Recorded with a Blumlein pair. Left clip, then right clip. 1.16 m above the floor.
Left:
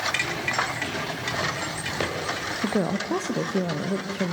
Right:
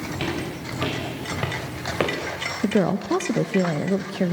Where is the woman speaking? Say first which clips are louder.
Right 5 dB; 15° right, 0.7 m.